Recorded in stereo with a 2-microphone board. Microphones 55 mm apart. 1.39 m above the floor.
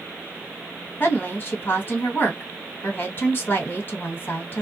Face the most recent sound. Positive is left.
turn(degrees=35)  # may be behind; listen again after turning